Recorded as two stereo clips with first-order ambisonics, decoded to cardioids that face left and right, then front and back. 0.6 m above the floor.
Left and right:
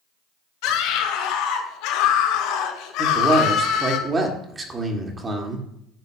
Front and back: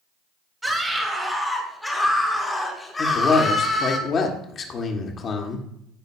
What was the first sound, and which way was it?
A scream, 95° left.